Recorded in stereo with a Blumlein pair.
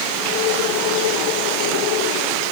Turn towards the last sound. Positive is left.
No sound to turn to.